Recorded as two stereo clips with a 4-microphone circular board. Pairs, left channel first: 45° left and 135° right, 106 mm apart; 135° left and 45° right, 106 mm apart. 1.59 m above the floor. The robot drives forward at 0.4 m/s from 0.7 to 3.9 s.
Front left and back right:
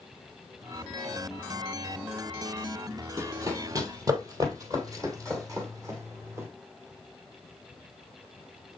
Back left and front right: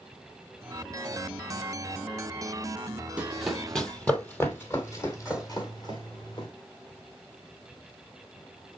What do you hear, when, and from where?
3.2 s running footsteps: 110° right, 1.8 m; by 6.5 s 165° left, 3 m